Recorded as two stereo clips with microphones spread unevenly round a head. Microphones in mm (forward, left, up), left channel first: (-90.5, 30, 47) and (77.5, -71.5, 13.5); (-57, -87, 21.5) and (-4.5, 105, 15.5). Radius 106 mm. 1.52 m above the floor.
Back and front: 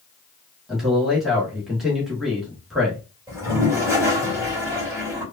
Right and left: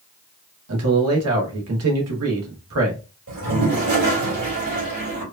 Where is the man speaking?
60° left, 1.6 m.